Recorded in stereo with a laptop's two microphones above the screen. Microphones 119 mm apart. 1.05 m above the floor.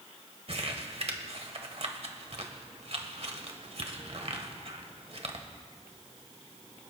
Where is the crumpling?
60° right (ahead or behind), 1.5 m.